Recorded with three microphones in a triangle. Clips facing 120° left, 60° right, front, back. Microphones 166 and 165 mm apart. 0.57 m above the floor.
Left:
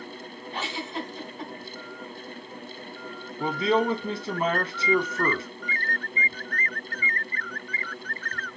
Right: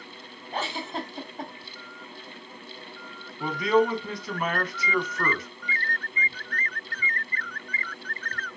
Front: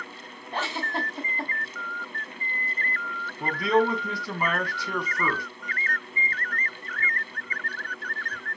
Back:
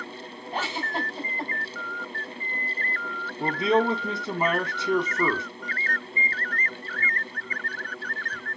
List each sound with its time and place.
0.5 s a giggle: 95° right, 2.5 m
3.4 s a man speaking: 145° left, 0.8 m